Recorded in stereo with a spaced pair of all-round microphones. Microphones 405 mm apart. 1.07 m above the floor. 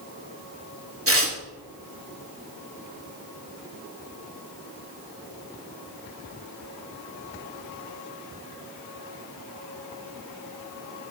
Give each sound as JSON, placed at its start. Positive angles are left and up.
{"t": 1.1, "sound": "tearing paper", "side_deg": -35, "distance_m": 2.0}